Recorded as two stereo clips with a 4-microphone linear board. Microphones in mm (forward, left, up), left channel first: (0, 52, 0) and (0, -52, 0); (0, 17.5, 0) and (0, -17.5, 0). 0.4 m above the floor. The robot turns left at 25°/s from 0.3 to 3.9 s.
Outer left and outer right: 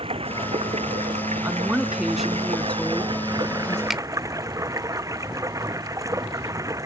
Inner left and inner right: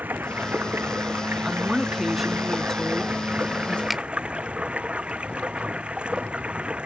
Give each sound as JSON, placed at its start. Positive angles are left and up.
{"t": 0.0, "sound": "running water", "azimuth_deg": -60}
{"t": 1.4, "sound": "a woman speaking", "azimuth_deg": -160}
{"t": 3.9, "sound": "a finger snap", "side_deg": 0}